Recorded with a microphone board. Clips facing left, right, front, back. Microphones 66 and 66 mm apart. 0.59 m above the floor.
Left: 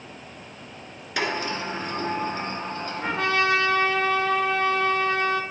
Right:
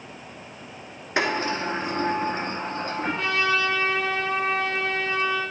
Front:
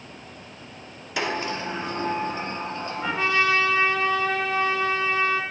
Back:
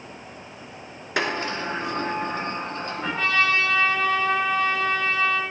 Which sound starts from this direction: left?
A trumpet, at 3.0 s.